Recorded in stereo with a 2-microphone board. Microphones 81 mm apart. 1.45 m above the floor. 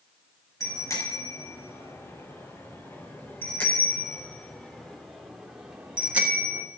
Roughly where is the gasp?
I don't hear a gasp.